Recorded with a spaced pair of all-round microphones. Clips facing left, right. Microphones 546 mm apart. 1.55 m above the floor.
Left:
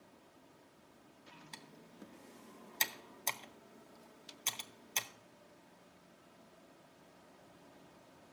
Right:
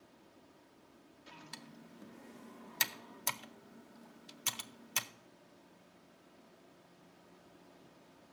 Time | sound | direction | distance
1.5 | typing on a keyboard | 35° right (ahead or behind) | 0.6 m